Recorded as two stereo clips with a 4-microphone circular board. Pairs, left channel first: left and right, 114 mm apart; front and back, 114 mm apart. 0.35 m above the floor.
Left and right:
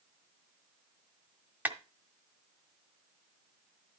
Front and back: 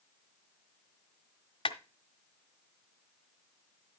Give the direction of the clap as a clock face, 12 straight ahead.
1 o'clock.